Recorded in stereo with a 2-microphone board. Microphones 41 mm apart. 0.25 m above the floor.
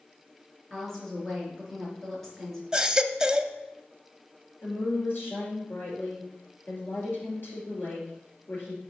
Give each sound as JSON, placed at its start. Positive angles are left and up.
{"t": 0.7, "sound": "a woman speaking", "side_deg": 5, "distance_m": 4.0}
{"t": 2.7, "sound": "a baby crying", "side_deg": -20, "distance_m": 0.6}
{"t": 4.6, "sound": "a woman speaking", "side_deg": 55, "distance_m": 4.5}